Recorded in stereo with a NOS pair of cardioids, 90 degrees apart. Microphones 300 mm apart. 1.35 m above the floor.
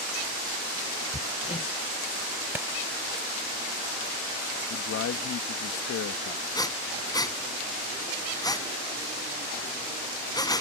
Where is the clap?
5° right.